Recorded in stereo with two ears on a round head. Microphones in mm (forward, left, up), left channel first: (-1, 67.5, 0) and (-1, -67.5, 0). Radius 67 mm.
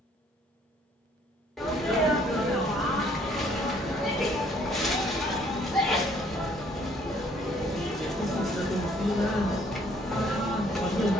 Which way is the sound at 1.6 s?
Centre (ahead or behind).